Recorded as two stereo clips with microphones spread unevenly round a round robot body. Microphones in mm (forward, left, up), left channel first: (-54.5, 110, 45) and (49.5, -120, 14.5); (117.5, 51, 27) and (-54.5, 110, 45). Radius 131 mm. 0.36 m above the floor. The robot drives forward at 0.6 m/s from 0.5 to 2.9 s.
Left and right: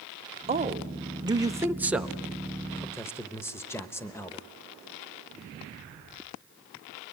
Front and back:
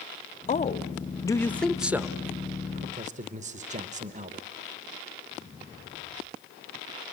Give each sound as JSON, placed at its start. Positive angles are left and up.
{"t": 0.5, "sound": "a man speaking", "azimuth_deg": -15, "distance_m": 1.1}